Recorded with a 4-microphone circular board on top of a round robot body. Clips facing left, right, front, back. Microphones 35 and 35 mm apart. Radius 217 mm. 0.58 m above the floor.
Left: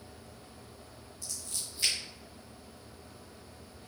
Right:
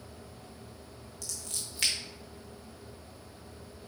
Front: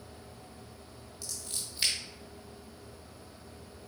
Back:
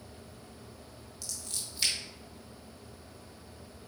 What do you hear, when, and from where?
1.2 s scissors: 75° right, 0.5 m